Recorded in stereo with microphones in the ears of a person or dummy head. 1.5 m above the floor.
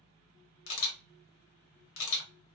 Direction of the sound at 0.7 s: 75° left (ahead or behind).